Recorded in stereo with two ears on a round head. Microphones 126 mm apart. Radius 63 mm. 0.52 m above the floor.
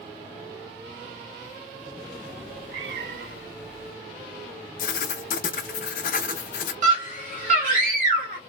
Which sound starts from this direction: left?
Writing, at 4.8 s.